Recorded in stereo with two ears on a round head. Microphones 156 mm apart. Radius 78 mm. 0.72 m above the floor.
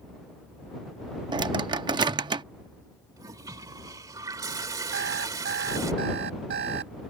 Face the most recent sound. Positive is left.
turn(degrees=-70)  # may be behind; listen again after turning